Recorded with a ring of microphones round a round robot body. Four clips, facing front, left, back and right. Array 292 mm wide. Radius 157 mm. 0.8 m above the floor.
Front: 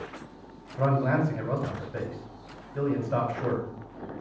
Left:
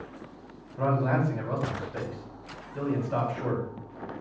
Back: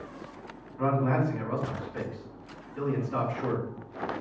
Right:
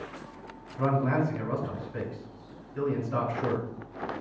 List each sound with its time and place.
0.8 s a man speaking: 25° left, 3 m